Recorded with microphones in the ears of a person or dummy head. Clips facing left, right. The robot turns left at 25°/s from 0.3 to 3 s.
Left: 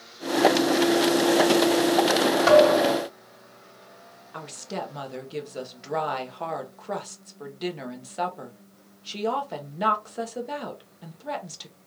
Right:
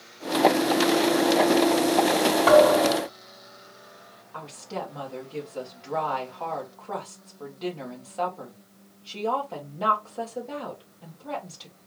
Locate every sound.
2.5 s a thud: 25° left (ahead or behind), 2 m; by 3.1 s 10° left (ahead or behind), 2 m
4.3 s a woman speaking: 20° left (ahead or behind), 0.9 m